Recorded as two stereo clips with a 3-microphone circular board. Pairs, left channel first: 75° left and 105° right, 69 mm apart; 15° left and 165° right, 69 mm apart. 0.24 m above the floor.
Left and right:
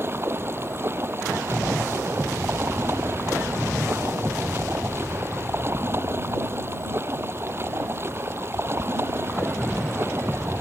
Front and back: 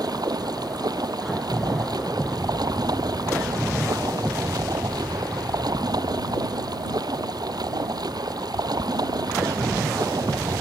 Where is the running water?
160° right.